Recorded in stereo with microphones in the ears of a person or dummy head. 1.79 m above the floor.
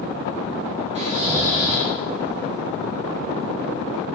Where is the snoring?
35° right (ahead or behind), 0.5 m.